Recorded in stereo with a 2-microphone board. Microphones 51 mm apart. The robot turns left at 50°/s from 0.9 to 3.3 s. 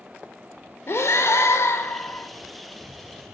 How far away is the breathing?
About 0.6 m.